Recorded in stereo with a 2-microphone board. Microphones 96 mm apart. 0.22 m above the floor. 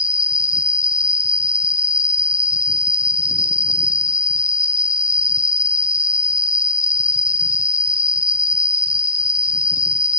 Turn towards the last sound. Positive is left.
turn(degrees=-60)  # may be behind; listen again after turning